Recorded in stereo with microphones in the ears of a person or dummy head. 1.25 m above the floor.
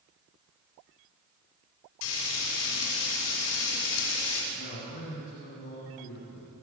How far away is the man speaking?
About 9 m.